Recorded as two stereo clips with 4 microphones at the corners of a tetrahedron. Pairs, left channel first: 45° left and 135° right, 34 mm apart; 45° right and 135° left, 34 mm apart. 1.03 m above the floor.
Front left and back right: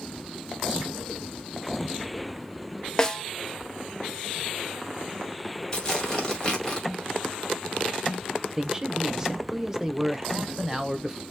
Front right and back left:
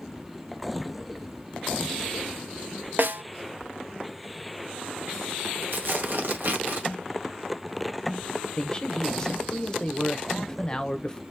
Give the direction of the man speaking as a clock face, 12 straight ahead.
3 o'clock.